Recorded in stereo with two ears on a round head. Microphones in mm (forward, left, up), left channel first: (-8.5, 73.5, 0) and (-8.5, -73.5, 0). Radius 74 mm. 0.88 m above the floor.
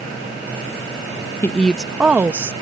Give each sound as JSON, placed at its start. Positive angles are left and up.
{"t": 1.4, "sound": "a woman speaking", "side_deg": 15}